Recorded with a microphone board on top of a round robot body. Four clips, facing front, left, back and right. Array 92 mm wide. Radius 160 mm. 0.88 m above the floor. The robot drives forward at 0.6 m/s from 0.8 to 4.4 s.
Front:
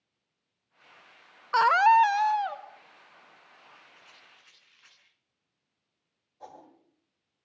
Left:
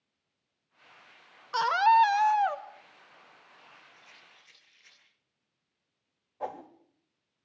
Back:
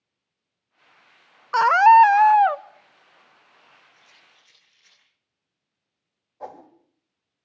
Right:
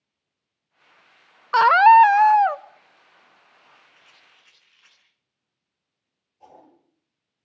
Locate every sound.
1.5 s a scream: 100° right, 0.7 m; by 2.6 s 150° right, 1.0 m
3.9 s a rattle: 50° right, 10 m
6.4 s a whoosh: 120° left, 2 m